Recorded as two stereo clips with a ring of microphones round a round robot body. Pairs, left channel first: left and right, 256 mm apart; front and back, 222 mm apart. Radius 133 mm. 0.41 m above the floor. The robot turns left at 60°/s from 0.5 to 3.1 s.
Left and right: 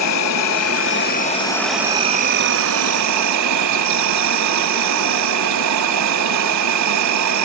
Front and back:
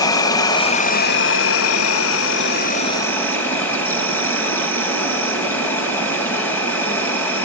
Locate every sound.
0.0 s an insect: 75° left, 3.5 m; by 7.5 s 80° right, 3.5 m